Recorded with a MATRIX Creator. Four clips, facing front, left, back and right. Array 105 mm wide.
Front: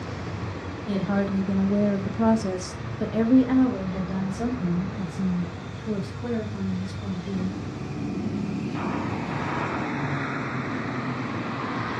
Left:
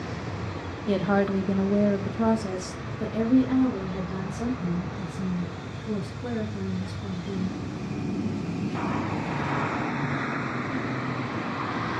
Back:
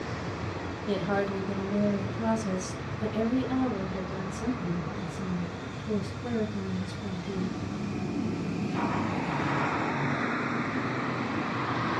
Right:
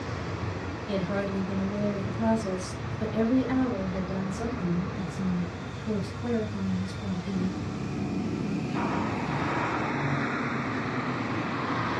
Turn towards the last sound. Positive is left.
turn(degrees=-20)